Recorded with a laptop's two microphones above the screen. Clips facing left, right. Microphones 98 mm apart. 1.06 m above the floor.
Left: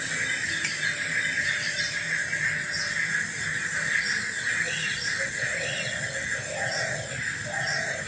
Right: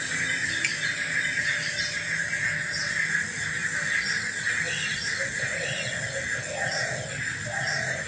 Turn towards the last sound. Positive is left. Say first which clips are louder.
# right 1 dB
turn(degrees=30)  # may be behind; listen again after turning